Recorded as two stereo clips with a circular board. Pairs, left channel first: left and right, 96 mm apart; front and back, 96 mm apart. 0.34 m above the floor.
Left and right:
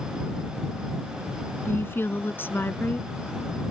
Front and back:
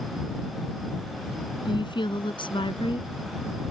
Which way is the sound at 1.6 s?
25° left.